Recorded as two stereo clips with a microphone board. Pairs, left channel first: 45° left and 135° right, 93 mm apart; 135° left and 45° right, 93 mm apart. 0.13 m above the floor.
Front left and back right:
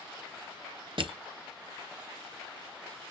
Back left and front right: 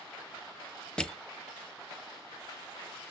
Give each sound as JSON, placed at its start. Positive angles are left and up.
{"t": 1.0, "sound": "crushing", "azimuth_deg": -145, "distance_m": 0.8}